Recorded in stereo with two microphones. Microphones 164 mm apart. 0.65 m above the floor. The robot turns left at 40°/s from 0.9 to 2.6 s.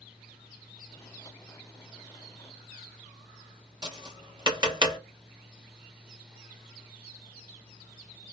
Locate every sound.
3.8 s tapping: 25° right (ahead or behind), 1.0 m